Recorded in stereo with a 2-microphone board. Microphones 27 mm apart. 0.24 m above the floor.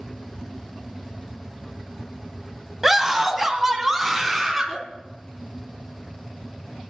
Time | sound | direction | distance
2.8 | a scream | 10° right (ahead or behind) | 1.1 m